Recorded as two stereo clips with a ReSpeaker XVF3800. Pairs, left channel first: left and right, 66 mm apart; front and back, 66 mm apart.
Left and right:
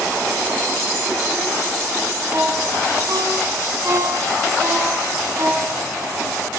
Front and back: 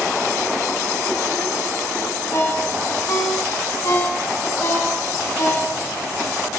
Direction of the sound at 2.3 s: 45° right.